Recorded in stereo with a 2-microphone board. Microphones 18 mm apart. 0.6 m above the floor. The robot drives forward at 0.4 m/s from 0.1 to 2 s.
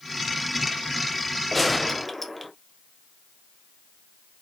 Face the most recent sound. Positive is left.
turn(degrees=5)  # may be behind; listen again after turning